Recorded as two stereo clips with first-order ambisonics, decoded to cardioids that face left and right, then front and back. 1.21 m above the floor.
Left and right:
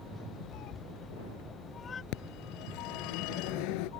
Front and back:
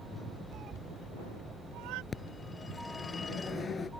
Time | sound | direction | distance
0.5 | a cat meowing | 125° left | ?
2.1 | a phone ringing | 75° left | ?